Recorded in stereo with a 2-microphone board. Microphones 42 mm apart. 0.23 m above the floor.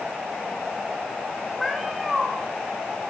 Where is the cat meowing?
Centre (ahead or behind), 6.5 m.